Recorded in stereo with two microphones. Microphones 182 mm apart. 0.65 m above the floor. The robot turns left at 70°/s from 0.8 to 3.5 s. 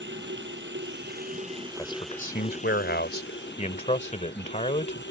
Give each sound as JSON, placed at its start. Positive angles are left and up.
{"t": 0.0, "sound": "running water", "azimuth_deg": -95}
{"t": 1.8, "sound": "a man speaking", "azimuth_deg": 160}